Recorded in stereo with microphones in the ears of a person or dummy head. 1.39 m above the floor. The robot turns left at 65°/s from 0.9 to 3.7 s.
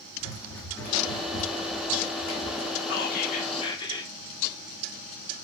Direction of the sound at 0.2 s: 15° left (ahead or behind).